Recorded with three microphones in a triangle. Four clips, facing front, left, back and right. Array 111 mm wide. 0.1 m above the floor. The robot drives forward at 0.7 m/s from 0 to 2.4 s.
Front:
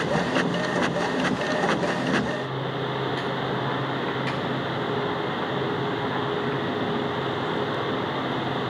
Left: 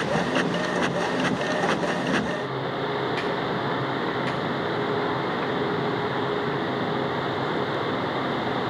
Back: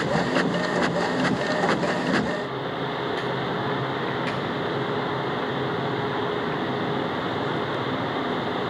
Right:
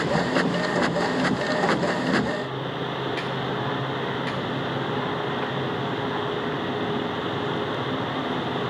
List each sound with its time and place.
Only background noise.